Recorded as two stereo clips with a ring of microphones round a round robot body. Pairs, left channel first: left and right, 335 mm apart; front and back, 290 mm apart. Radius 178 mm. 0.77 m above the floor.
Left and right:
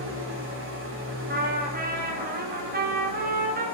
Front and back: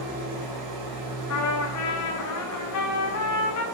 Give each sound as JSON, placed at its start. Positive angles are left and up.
{"t": 0.0, "sound": "an engine running", "azimuth_deg": -145, "distance_m": 1.5}
{"t": 1.3, "sound": "a trumpet", "azimuth_deg": -25, "distance_m": 1.0}